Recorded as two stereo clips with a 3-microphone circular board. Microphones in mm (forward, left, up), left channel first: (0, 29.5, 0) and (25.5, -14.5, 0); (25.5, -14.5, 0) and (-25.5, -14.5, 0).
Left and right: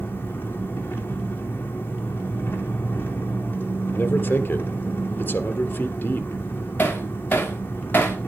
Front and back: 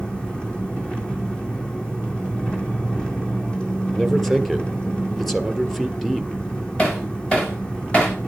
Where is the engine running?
70° left, 3 m.